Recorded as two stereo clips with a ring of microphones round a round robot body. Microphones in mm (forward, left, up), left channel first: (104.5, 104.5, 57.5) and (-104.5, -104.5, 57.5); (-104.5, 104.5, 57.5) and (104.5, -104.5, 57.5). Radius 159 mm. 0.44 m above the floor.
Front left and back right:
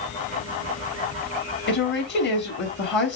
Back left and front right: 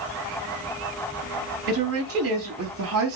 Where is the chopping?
No chopping in this recording.